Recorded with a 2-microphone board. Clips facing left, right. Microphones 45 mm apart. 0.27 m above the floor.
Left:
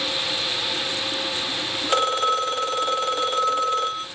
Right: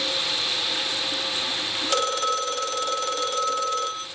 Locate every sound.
1.9 s a phone ringing: 20° left (ahead or behind), 0.7 m